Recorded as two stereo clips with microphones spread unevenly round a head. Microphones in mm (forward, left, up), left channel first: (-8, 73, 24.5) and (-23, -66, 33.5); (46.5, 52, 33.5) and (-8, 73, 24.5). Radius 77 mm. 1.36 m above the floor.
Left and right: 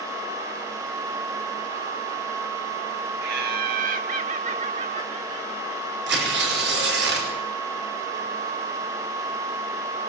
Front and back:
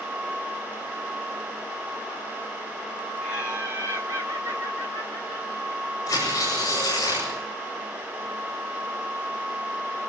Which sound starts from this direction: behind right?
Laughter, at 3.2 s.